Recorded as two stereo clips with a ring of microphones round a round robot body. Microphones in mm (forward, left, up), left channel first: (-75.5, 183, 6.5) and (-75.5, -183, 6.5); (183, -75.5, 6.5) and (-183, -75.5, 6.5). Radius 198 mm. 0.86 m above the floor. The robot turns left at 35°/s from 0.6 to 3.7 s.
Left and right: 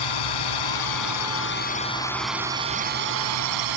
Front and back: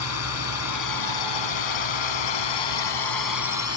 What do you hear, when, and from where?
0.0 s a drone: 55° left; by 3.8 s 50° right